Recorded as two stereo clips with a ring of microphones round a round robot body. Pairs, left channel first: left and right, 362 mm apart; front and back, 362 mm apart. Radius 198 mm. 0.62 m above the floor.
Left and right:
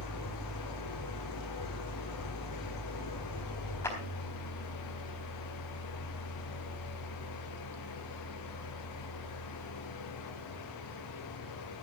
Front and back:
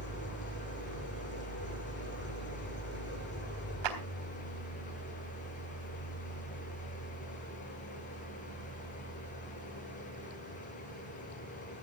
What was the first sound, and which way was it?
An engine running, 60° left.